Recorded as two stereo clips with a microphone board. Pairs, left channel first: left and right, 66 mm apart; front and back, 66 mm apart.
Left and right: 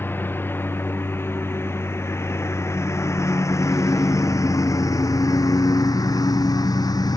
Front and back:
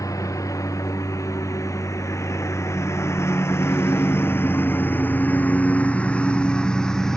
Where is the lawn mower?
35° left; by 7.2 s 85° left.